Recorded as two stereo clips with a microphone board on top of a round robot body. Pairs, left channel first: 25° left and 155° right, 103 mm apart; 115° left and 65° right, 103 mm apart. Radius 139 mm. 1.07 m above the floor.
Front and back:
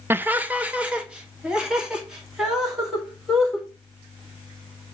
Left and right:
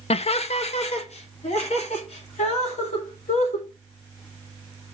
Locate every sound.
0.1 s laughter: 135° left, 0.6 m; by 3.7 s 115° left, 3.5 m